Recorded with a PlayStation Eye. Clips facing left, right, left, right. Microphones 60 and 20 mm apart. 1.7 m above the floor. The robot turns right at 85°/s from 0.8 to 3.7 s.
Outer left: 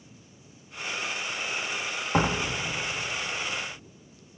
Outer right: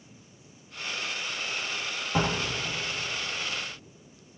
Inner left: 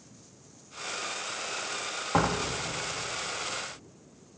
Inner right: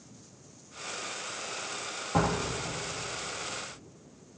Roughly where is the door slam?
Left.